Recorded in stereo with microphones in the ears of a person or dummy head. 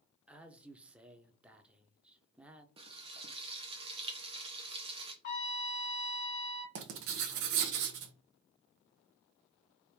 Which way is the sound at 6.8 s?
60° right (ahead or behind).